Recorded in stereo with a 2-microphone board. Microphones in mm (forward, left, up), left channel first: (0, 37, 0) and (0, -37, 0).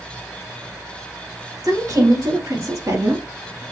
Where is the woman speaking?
55° right (ahead or behind), 1.8 m; by 3.6 s 35° right (ahead or behind), 1.3 m.